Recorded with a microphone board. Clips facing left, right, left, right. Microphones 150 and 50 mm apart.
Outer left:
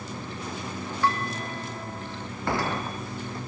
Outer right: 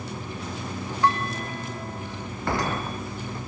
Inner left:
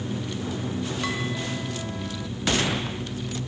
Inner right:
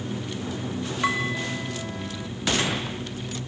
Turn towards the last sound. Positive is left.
turn(degrees=-20)  # may be behind; listen again after turning